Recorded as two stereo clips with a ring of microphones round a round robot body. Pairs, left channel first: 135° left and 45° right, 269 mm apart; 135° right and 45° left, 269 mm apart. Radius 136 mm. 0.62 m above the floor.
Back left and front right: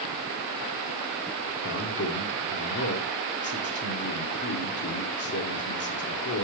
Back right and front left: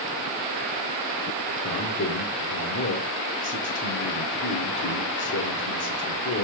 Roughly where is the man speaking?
Behind.